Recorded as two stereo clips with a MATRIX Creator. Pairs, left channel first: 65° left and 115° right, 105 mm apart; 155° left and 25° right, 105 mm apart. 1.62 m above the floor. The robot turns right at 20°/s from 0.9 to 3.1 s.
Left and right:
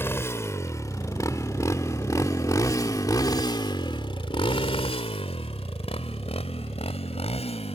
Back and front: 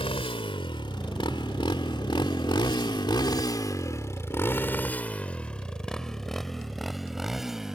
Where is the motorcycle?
135° left; by 7.8 s 60° left.